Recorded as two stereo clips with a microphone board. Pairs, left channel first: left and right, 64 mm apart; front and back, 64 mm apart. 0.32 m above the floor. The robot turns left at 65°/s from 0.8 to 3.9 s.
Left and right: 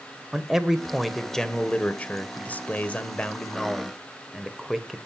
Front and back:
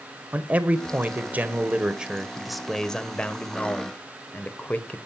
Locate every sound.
0.3 s a man speaking: 160° right, 1.4 m; by 5.0 s straight ahead, 1.4 m